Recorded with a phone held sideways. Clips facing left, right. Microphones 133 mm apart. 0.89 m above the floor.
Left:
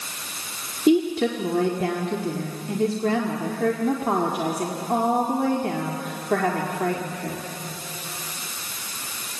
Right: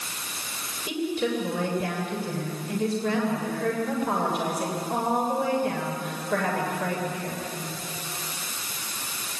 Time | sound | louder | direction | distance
0.9 | a woman speaking | left 8 dB | 75° left (ahead or behind) | 2.0 m